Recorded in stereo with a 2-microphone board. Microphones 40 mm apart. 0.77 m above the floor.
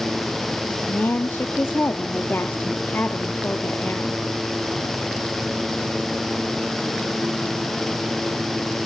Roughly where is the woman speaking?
Left.